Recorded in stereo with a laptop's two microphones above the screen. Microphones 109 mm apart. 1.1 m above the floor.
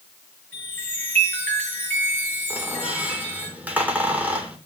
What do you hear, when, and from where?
0.5 s a chime: 15° left (ahead or behind), 5.5 m
2.5 s a squeak: 15° right (ahead or behind), 2.5 m